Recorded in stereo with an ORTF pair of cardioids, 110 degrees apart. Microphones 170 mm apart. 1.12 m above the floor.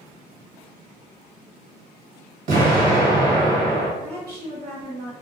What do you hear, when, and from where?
2.5 s an explosion: 55° right, 1.2 m
4.0 s a woman speaking: 65° right, 1.1 m